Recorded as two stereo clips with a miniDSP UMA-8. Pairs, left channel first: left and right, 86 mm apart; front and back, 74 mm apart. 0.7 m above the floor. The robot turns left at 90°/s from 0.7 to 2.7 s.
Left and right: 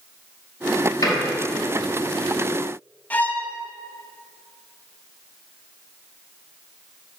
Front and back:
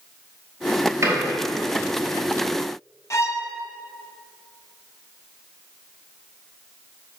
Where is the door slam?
130° left, 3 m; by 1.1 s 120° left, 3 m.